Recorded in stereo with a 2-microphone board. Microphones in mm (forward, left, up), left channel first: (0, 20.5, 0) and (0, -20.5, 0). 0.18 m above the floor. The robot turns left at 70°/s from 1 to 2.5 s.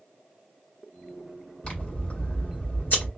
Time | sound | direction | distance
1.6 | scissors | 150° left | 1.5 m